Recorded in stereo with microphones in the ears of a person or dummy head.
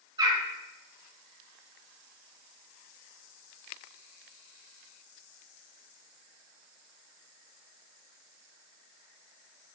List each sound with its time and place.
0.2 s a bird: 20° right (ahead or behind), 4.5 m